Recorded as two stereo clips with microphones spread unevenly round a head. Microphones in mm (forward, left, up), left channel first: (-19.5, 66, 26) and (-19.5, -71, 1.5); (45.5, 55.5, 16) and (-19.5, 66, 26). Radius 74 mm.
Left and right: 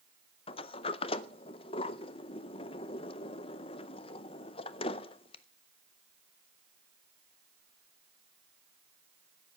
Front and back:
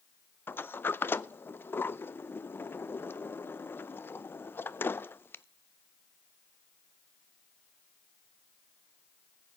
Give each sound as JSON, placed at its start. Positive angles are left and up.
{"t": 0.5, "sound": "a sliding door", "azimuth_deg": 35, "distance_m": 0.5}